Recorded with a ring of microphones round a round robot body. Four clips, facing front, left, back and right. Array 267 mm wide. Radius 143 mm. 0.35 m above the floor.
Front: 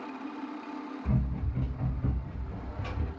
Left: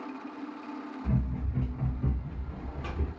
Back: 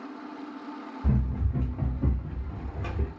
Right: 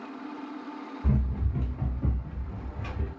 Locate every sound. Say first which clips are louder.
1.0 s running footsteps: right 2 dB, back 4 dB; 145° right, 1.0 m; by 3.1 s 155° left, 1.3 m